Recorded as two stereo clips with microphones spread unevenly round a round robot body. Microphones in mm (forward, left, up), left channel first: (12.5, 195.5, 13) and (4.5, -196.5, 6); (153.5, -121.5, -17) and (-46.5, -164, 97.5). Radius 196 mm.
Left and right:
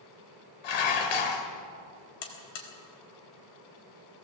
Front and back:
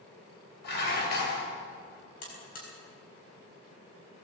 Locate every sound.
0.6 s dishes clattering: 65° left, 2.5 m
2.2 s a buzzer: 70° left, 4 m